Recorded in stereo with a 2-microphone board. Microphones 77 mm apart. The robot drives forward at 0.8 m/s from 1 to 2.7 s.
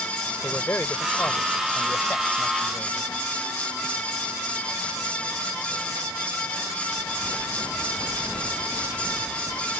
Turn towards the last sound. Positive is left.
turn(degrees=20)  # may be behind; listen again after turning